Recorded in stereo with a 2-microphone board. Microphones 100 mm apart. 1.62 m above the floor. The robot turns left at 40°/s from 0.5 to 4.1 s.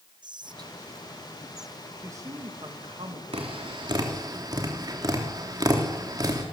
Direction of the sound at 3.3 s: 70° right (ahead or behind).